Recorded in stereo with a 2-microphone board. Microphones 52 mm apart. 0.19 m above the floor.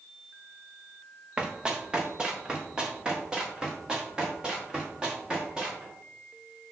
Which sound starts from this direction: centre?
Running footsteps, at 1.4 s.